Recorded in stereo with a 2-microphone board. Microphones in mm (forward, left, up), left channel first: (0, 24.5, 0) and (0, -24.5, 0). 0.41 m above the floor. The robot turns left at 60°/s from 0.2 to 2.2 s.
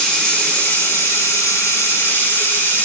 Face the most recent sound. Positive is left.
turn(degrees=45)